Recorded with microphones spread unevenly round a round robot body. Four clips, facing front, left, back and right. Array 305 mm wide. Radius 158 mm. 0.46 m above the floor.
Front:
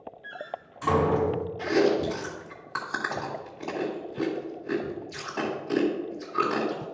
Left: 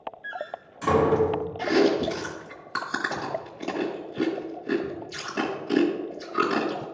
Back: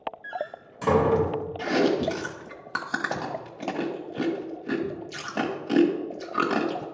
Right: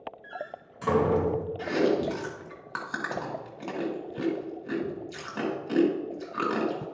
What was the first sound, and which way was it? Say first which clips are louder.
A door slam: left 4 dB, back 4 dB; 170° right.